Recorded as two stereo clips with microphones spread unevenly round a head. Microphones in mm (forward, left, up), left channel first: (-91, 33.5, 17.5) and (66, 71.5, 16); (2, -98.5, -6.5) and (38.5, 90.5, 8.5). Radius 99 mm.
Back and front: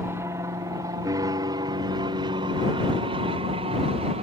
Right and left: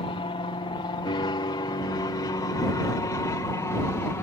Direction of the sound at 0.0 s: 55° right.